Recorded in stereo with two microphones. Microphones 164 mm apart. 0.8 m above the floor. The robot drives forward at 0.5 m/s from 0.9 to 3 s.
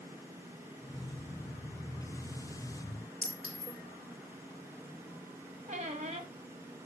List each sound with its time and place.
3.2 s a clink: 5° left (ahead or behind), 2.5 m
5.7 s a squeak: 45° right (ahead or behind), 1.0 m